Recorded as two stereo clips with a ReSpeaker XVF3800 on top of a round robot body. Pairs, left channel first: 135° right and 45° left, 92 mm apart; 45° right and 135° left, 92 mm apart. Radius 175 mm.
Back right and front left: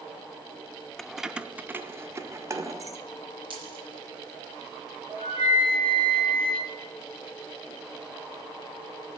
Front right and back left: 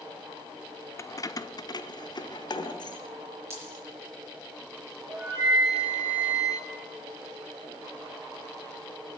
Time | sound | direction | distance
1.0 | keys jangling | 55° right | 0.6 m
3.5 | a dropped coin | 75° left | 5 m
5.1 | a flute | 70° left | 5.5 m